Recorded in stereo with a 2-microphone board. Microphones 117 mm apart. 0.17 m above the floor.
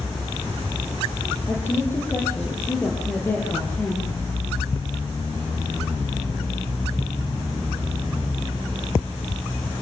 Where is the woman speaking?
20° left (ahead or behind), 5 m.